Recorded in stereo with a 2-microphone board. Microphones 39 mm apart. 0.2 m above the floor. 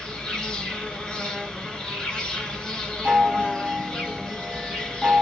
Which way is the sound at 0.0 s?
20° left (ahead or behind).